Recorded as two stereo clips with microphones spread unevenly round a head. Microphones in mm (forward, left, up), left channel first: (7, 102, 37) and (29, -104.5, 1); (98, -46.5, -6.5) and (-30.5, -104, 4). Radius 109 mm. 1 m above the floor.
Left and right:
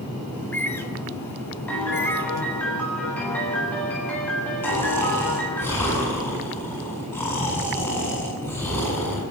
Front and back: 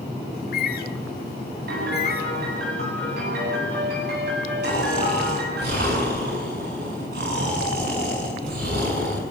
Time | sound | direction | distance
0.3 | a bird | 15° left | 1.7 m
1.7 | a piano | straight behind | 8 m
4.6 | snoring | 175° left | 7.5 m